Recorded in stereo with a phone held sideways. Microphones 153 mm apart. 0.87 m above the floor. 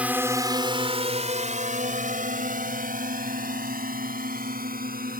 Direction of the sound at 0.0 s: 10° right (ahead or behind).